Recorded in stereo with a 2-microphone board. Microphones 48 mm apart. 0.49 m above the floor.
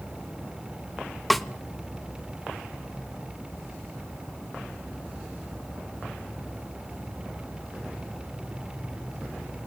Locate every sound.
1.3 s a snare drum: centre (ahead or behind), 0.7 m